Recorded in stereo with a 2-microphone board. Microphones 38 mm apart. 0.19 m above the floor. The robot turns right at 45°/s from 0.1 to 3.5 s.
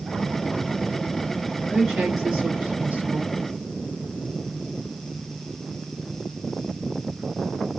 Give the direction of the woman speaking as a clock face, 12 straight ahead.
6 o'clock.